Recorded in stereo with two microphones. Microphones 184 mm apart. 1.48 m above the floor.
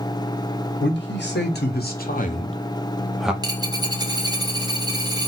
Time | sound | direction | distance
0.8 | a man speaking | 75° left (ahead or behind) | 1.8 m
3.4 | a dropped coin | 20° right (ahead or behind) | 0.8 m